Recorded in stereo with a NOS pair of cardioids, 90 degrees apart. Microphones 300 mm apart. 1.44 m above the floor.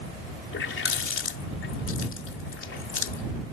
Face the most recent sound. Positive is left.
turn(degrees=45)